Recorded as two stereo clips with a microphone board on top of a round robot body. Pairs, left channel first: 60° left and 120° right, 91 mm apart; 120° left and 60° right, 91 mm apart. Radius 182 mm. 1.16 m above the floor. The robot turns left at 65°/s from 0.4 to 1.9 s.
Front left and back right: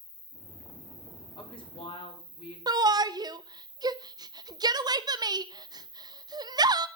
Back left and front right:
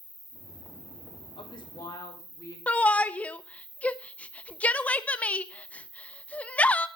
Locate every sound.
0.0 s an insect: 30° left, 8 m; by 7.0 s 65° right, 8 m
1.4 s a woman speaking: 95° left, 5 m; by 2.6 s 60° left, 5 m
2.7 s a shout: 165° right, 0.8 m